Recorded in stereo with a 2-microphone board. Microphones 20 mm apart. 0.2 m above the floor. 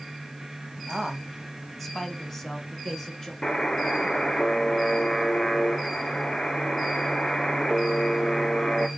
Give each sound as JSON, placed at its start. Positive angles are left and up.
{"t": 0.9, "sound": "a man speaking", "side_deg": -5, "distance_m": 1.1}
{"t": 3.4, "sound": "a buzzer", "side_deg": 30, "distance_m": 0.9}